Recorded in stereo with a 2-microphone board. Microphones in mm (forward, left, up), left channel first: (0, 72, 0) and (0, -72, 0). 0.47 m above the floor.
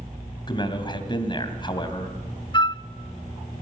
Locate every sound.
0.5 s a man speaking: 35° left (ahead or behind), 3 m
2.5 s a flute: 35° left (ahead or behind), 0.6 m